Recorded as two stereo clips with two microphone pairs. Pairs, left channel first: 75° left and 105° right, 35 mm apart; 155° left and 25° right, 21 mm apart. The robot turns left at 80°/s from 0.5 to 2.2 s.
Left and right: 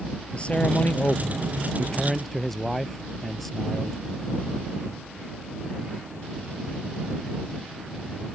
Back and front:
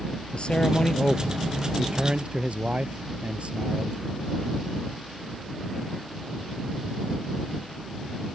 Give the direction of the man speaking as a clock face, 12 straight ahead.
8 o'clock.